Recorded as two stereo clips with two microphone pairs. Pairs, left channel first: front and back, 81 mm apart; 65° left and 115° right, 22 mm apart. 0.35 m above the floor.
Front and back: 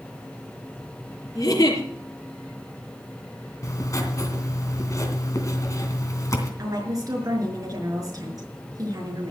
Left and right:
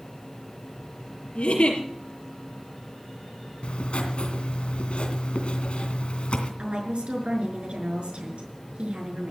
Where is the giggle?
45° left, 4.5 m.